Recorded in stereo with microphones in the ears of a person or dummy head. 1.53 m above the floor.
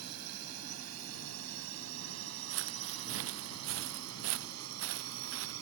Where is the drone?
85° right.